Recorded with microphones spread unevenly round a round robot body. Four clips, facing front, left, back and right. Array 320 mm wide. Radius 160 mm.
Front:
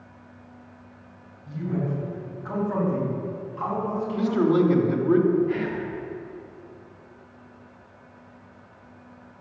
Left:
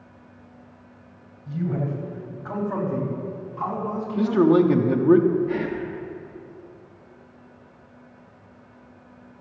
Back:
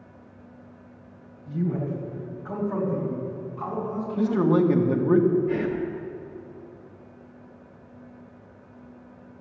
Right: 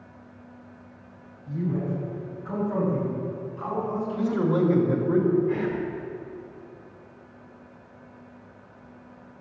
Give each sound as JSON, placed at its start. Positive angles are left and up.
{"t": 1.5, "sound": "a man speaking", "azimuth_deg": 90, "distance_m": 4.0}
{"t": 4.2, "sound": "a man speaking", "azimuth_deg": 100, "distance_m": 1.3}
{"t": 5.5, "sound": "whispering", "azimuth_deg": 140, "distance_m": 1.5}